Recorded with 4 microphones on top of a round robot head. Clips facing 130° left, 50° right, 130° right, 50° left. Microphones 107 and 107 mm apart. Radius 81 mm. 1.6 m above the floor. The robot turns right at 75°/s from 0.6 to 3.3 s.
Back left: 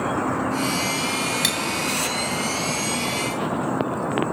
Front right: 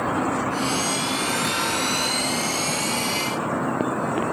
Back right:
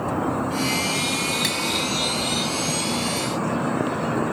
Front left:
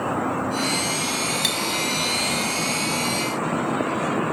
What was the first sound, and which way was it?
Cutlery clinking, 130° left.